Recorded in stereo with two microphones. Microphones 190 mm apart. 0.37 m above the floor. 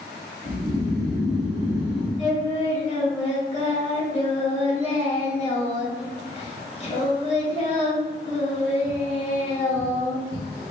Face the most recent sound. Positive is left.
turn(degrees=35)  # may be behind; listen again after turning